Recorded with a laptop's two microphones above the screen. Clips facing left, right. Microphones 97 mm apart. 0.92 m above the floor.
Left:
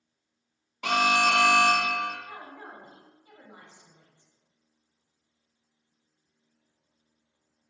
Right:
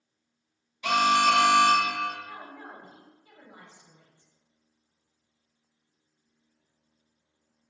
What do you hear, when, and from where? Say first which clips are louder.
0.8 s an alarm: right 2 dB; 60° left (ahead or behind), 0.8 m
2.2 s a woman speaking: even; 20° left (ahead or behind), 1.3 m